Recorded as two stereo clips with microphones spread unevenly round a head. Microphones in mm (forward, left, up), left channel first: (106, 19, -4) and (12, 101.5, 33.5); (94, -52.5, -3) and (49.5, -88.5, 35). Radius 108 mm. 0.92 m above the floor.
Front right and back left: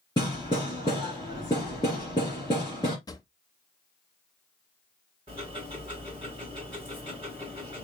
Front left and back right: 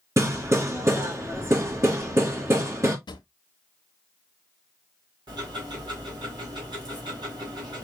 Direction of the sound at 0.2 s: 115° right.